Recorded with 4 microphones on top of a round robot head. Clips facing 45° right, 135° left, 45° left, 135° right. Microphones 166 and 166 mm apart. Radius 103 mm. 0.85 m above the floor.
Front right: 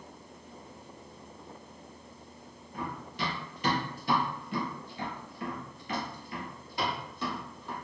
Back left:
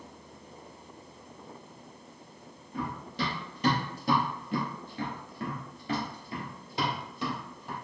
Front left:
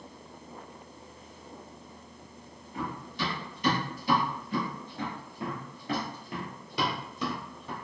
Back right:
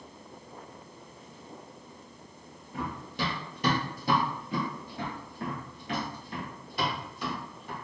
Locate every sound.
2.7 s running footsteps: 165° right, 1.5 m; by 7.8 s 55° left, 1.6 m